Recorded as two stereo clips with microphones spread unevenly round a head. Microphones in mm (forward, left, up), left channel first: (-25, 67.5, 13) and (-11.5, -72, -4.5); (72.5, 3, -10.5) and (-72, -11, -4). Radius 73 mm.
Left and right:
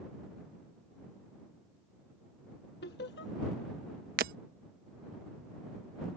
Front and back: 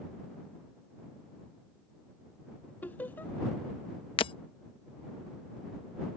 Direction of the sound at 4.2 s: 50° right.